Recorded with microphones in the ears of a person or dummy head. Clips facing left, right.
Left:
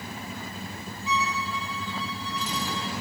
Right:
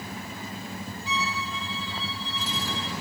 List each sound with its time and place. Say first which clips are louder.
1.1 s a violin: left 4 dB; 35° right (ahead or behind), 1.2 m